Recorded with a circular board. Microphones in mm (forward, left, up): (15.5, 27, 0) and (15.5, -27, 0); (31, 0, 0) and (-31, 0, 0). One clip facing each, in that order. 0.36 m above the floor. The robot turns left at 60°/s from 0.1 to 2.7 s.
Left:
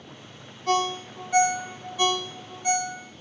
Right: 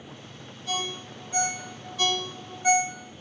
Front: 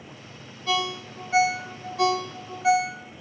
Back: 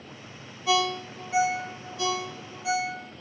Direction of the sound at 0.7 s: 100° left.